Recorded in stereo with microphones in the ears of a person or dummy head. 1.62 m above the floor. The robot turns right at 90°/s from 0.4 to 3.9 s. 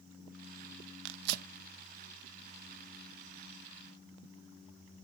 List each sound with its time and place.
1.1 s tearing paper: 75° right (ahead or behind), 0.6 m; by 1.5 s 50° right (ahead or behind), 0.6 m